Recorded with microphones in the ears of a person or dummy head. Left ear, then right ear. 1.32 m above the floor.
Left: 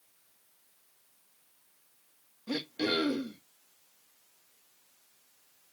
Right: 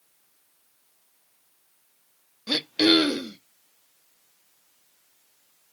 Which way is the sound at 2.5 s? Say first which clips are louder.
Right 11 dB; 80° right.